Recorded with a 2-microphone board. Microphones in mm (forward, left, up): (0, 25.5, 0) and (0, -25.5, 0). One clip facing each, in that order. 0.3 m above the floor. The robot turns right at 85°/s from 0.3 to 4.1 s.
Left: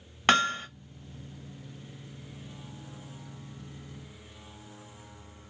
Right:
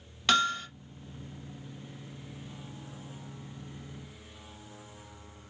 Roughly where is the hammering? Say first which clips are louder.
Left 2 dB; left.